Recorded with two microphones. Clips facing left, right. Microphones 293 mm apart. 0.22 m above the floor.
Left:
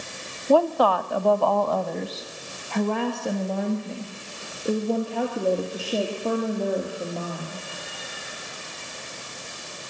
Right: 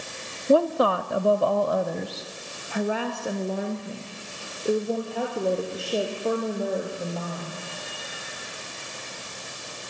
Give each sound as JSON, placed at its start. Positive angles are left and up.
{"t": 0.5, "sound": "a woman speaking", "side_deg": -25, "distance_m": 1.1}